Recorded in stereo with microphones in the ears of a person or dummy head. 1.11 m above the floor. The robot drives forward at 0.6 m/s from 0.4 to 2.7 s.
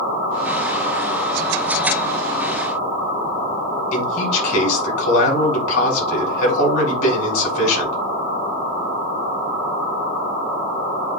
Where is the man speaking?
70° left (ahead or behind), 5.5 m.